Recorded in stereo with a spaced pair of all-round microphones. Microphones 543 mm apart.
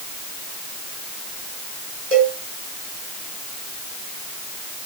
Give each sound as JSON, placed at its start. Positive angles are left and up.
{"t": 2.1, "sound": "a cowbell", "side_deg": -80, "distance_m": 4.0}